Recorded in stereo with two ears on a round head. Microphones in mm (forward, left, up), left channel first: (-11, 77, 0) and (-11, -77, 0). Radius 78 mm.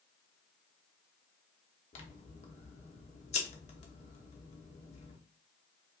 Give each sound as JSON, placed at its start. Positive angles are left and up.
{"t": 1.9, "sound": "scissors", "side_deg": 40, "distance_m": 1.0}